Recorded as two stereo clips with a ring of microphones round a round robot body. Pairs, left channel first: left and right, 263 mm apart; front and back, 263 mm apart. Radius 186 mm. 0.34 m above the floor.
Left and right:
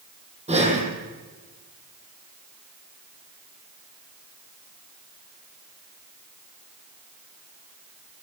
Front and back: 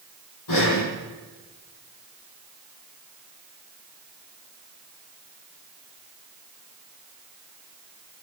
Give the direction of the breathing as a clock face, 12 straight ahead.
1 o'clock.